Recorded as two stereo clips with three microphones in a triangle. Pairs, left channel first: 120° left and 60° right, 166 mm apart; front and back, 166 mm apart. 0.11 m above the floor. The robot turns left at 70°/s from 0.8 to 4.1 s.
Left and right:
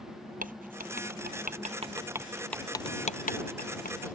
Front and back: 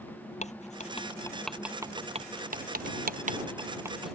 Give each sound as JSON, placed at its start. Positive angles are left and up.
{"t": 0.4, "sound": "writing", "azimuth_deg": -40}